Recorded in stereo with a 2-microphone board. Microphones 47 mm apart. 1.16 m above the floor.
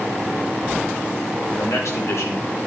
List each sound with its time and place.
1.5 s a man speaking: 75° left (ahead or behind), 4.5 m; by 2.7 s 80° left, 3.5 m